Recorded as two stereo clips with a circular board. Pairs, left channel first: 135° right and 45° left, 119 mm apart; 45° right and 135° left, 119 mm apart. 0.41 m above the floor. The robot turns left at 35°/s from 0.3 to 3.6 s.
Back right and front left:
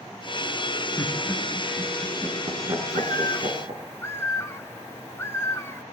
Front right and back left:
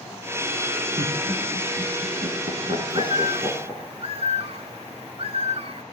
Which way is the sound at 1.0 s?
155° left.